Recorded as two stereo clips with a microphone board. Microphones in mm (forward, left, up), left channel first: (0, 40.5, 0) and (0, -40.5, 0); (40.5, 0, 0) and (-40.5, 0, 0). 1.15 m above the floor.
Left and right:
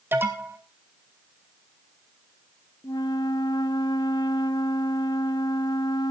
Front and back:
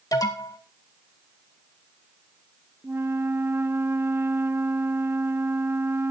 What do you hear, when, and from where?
0.1 s an alarm: 30° right, 2 m
2.8 s a flute: 120° left, 0.7 m